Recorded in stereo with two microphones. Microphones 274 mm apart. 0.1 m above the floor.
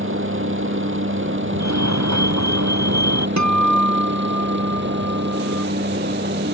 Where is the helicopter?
45° right (ahead or behind); by 6.5 s 40° right (ahead or behind).